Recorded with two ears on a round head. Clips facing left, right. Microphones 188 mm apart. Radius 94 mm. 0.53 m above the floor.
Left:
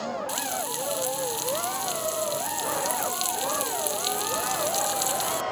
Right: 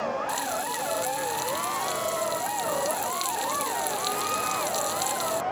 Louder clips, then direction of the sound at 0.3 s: Right 1 dB; 10° left (ahead or behind).